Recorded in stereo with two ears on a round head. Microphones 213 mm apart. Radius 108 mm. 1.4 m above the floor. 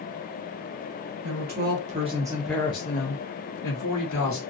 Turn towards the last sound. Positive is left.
turn(degrees=80)